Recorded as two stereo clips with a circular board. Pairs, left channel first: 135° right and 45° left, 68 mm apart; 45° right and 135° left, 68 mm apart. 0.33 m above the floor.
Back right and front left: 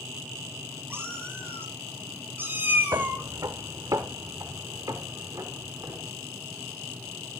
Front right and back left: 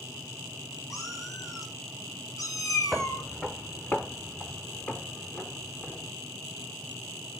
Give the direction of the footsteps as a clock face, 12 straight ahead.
11 o'clock.